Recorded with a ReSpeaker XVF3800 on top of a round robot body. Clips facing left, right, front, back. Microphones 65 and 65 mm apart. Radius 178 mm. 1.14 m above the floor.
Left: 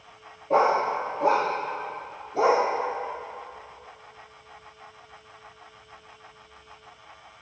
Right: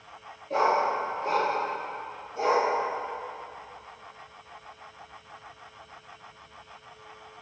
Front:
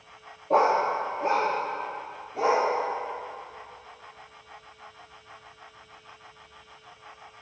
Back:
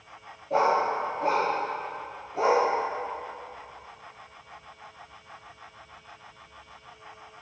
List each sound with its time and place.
0.5 s a dog barking: 50° left, 0.6 m; by 2.6 s 90° left, 1.4 m